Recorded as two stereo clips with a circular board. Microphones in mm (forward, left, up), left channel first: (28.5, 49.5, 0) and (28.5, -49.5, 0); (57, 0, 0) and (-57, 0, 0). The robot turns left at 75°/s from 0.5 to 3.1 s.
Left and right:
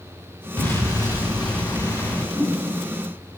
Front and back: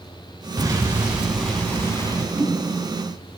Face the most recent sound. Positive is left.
turn(degrees=-165)